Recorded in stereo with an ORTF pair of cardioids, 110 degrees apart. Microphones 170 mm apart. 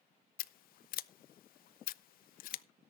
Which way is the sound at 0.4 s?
65° left.